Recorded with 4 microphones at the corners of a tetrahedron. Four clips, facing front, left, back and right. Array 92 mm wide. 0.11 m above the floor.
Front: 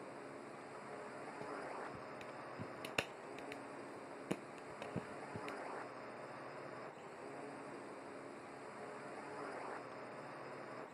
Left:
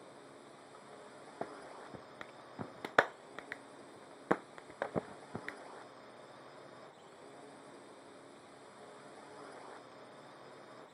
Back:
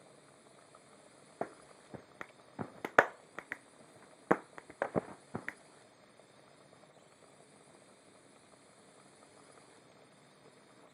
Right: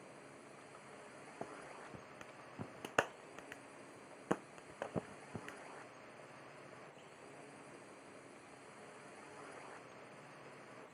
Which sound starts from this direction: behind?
A clap, at 1.4 s.